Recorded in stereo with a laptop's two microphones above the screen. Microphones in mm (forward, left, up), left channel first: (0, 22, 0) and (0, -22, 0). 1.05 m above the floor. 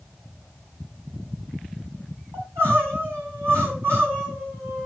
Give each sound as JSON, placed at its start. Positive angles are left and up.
{"t": 2.3, "sound": "crying", "side_deg": -75, "distance_m": 7.0}